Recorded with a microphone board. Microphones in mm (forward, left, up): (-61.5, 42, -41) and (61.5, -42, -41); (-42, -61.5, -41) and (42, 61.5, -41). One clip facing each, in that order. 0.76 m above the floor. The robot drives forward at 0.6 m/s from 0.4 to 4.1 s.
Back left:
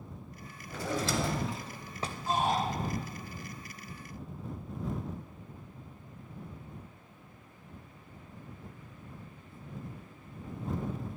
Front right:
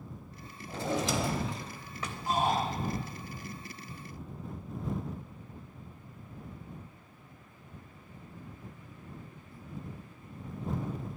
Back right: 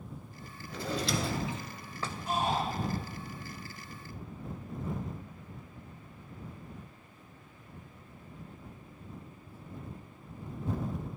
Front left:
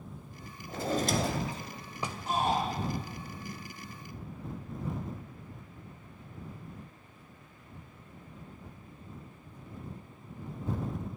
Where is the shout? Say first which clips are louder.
Front right 1 dB, front left 2 dB; 35° left, 2.5 m; by 2.6 s 40° left, 2.5 m.